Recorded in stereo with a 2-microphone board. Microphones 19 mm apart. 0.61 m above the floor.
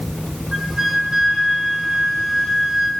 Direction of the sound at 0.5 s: 35° right (ahead or behind).